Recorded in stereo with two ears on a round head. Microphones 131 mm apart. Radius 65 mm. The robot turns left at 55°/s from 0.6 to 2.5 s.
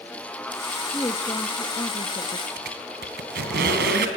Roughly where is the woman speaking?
Behind left.